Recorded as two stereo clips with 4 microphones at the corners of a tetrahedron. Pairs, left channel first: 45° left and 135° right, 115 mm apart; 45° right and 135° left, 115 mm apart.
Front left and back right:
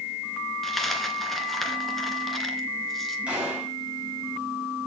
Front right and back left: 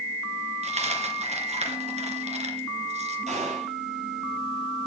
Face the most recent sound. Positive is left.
turn(degrees=145)